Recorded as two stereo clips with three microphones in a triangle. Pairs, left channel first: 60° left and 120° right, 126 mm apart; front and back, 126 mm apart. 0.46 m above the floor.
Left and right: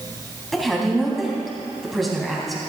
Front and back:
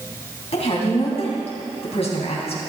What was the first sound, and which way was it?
A woman speaking, 30° right.